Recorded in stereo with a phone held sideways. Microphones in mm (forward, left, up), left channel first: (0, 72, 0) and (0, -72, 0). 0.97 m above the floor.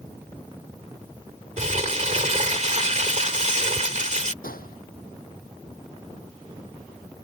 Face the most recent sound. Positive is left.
turn(degrees=90)